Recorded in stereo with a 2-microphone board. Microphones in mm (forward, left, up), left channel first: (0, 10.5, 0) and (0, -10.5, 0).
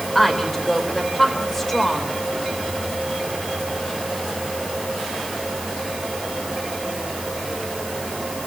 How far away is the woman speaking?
About 4.5 m.